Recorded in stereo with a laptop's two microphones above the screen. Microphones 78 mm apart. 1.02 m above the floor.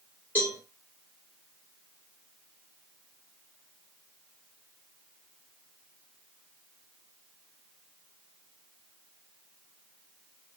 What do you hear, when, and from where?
0.3 s a cowbell: 25° left (ahead or behind), 1.9 m